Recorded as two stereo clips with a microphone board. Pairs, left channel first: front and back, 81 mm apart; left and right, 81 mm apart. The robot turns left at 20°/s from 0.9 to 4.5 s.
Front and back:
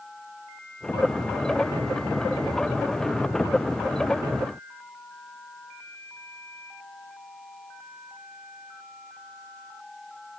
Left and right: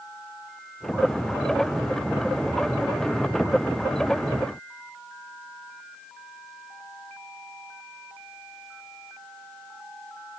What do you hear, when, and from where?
Only background noise.